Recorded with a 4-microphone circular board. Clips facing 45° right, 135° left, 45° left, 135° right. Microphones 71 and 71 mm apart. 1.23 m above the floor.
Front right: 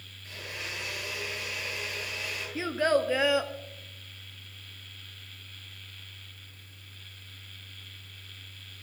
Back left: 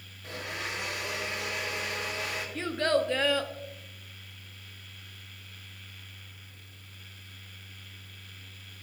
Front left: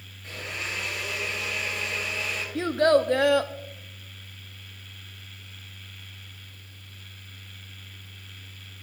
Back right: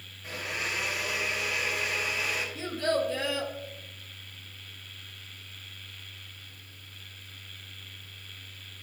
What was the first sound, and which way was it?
A blender, 145° left.